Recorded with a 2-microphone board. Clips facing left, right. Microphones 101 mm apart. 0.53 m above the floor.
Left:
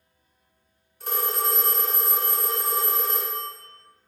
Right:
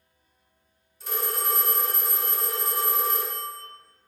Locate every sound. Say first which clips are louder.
1.0 s a phone ringing: left 3 dB; 55° left (ahead or behind), 0.9 m